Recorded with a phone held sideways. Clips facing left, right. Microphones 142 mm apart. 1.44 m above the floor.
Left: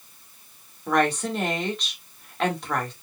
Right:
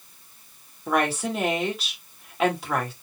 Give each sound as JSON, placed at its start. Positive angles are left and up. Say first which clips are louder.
{"t": 0.9, "sound": "a woman speaking", "louder": "left 1 dB", "side_deg": -5, "distance_m": 2.5}